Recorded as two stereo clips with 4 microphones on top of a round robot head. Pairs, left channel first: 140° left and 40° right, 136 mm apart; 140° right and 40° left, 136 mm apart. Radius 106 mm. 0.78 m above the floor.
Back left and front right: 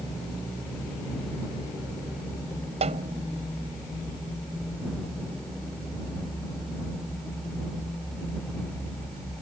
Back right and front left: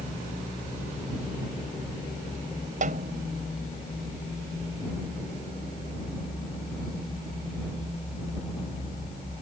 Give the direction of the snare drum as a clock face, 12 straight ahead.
12 o'clock.